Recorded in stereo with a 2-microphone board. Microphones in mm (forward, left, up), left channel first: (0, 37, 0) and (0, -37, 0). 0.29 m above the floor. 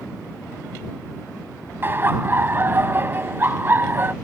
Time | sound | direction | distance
1.8 | laughter | 30° right (ahead or behind) | ?